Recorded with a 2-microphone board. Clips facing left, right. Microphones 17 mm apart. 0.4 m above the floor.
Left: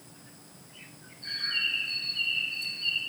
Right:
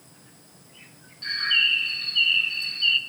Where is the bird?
60° right (ahead or behind), 0.6 m.